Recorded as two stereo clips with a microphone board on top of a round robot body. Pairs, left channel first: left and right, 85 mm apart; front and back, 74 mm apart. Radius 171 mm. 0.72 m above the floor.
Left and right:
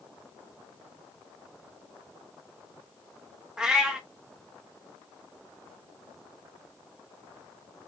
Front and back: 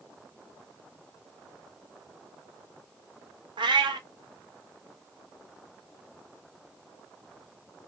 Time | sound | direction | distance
3.6 | a cat meowing | 170° right | 0.5 m